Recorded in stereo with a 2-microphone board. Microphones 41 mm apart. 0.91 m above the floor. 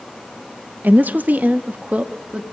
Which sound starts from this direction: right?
A woman speaking, at 0.8 s.